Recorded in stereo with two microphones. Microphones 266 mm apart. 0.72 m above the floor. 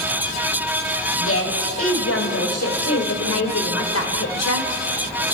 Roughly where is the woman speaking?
Left.